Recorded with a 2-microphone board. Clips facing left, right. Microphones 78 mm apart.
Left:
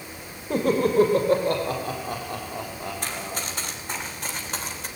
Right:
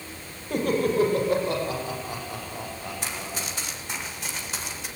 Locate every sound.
0.5 s laughter: 35° left (ahead or behind), 5.5 m; by 3.4 s 65° left (ahead or behind), 8 m
3.0 s running footsteps: 50° left (ahead or behind), 7.5 m; by 4.9 s 45° left (ahead or behind), 7.5 m